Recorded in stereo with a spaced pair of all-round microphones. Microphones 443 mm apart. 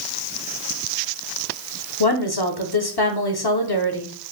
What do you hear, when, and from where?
2.0 s a woman speaking: 55° left (ahead or behind), 0.9 m